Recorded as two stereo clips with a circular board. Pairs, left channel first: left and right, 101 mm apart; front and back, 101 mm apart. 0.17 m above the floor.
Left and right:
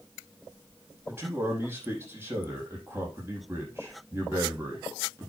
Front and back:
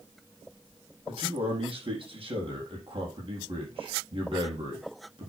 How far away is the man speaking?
About 6 m.